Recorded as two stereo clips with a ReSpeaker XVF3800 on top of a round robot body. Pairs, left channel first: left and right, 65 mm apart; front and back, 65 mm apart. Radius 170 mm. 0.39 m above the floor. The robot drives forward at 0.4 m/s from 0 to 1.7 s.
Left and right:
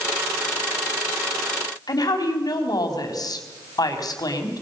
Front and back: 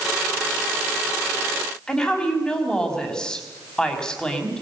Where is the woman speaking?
75° left, 4.5 m.